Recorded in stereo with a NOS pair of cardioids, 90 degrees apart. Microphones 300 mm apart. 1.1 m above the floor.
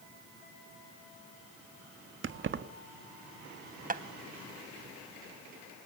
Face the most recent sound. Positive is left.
turn(degrees=-30)